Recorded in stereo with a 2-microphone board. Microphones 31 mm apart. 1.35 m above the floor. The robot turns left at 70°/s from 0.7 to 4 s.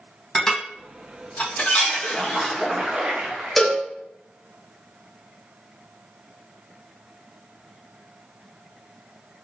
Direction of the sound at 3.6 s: 5° left (ahead or behind).